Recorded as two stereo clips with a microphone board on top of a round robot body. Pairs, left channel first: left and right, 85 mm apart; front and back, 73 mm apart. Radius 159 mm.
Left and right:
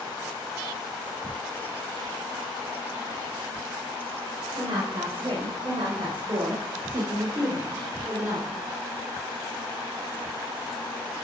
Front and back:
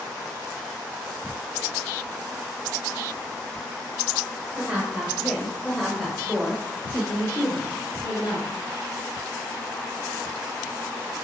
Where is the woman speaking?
110° right, 2.5 m; by 8.6 s 25° right, 1.9 m.